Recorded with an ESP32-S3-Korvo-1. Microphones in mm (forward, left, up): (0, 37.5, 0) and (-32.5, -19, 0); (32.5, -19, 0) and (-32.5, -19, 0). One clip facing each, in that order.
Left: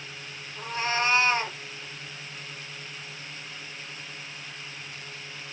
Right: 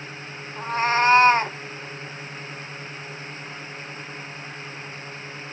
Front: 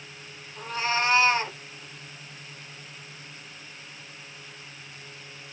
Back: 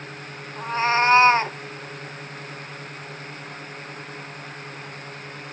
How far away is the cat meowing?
About 0.5 m.